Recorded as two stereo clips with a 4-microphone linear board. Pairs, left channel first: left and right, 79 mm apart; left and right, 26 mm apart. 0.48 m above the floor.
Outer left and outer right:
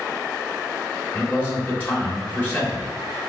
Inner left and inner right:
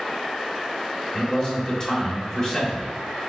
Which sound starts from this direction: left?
A man speaking, at 1.1 s.